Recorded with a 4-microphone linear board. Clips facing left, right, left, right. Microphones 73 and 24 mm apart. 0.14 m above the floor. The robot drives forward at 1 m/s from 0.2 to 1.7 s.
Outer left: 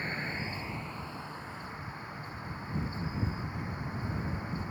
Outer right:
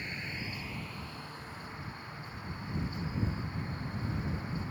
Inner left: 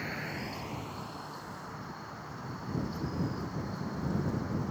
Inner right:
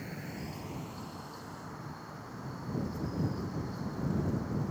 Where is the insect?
40° left (ahead or behind); by 4.7 s 15° left (ahead or behind).